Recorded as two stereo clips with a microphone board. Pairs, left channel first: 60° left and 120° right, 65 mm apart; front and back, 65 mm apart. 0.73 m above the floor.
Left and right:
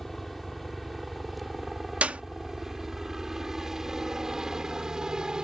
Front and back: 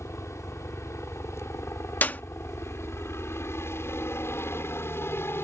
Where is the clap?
55° right.